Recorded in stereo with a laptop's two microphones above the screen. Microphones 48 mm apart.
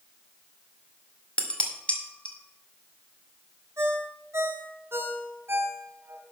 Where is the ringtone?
55° right (ahead or behind), 1.1 m.